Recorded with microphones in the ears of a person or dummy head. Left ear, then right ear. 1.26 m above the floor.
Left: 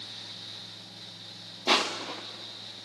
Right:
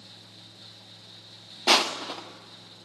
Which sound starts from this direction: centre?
Crushing, at 1.7 s.